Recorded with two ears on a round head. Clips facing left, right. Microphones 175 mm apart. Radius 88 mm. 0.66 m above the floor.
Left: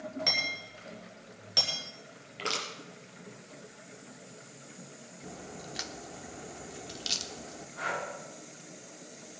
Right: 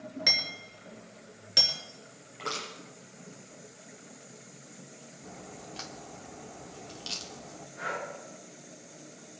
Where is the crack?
15° left (ahead or behind), 1.1 m.